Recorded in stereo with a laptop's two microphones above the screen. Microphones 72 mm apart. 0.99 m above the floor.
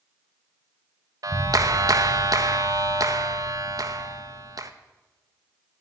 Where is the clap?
55° right (ahead or behind), 0.9 m.